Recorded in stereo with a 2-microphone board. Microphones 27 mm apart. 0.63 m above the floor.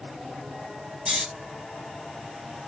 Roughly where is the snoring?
Right.